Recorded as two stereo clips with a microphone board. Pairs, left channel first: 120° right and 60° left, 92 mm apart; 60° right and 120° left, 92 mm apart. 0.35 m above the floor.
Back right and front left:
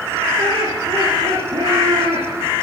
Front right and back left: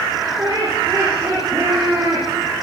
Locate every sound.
0.4 s laughter: 75° left, 9 m